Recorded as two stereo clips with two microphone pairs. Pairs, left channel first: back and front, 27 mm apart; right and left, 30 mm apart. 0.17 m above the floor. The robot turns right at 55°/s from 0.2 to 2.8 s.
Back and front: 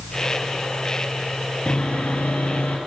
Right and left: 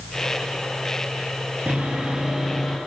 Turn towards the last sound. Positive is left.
turn(degrees=-175)